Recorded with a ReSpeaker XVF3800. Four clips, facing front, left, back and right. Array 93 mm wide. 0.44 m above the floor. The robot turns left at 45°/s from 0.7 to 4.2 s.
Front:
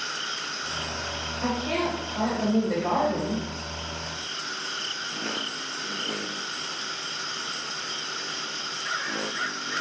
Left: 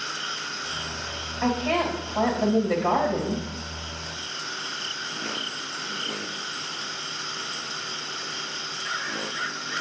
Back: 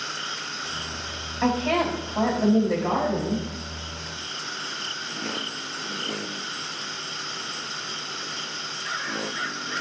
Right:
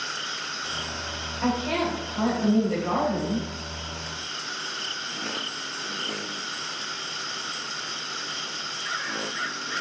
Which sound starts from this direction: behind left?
A woman speaking, at 1.4 s.